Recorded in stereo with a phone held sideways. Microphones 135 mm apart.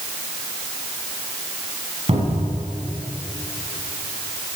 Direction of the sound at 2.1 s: 50° right (ahead or behind).